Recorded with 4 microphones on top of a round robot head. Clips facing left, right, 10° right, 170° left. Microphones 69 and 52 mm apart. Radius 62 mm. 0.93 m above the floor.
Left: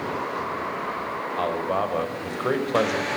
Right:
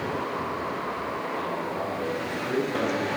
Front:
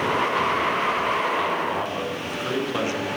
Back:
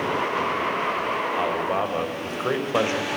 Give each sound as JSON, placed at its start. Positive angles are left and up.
{"t": 1.4, "sound": "a man speaking", "azimuth_deg": 115, "distance_m": 5.5}